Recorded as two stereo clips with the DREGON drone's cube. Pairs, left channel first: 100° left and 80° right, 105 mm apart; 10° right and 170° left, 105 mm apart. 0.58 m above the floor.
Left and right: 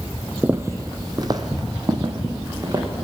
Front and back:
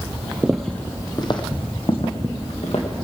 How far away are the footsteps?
About 0.6 m.